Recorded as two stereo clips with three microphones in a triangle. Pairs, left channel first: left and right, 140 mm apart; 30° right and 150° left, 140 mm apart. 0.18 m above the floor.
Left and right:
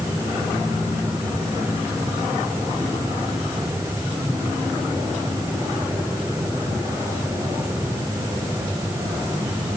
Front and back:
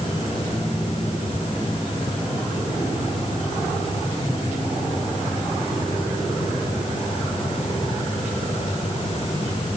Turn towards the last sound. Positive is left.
No sound to turn to.